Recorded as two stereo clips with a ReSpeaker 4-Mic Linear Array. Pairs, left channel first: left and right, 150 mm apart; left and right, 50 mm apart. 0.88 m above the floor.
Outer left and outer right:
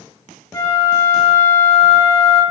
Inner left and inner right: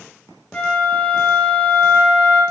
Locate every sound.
0.5 s a flute: 20° left (ahead or behind), 0.7 m